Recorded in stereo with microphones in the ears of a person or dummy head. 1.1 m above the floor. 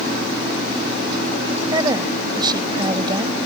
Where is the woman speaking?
20° right (ahead or behind).